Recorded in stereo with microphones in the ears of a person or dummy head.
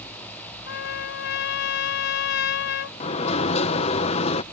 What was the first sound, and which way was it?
A trumpet, 65° left (ahead or behind).